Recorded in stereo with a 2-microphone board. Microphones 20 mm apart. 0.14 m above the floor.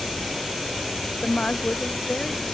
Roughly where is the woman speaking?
Left.